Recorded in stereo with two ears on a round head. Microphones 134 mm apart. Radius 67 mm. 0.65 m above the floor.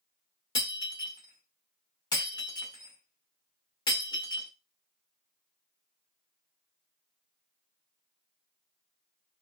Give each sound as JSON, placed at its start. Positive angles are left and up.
{"t": 0.6, "sound": "breaking glass", "side_deg": 30, "distance_m": 1.1}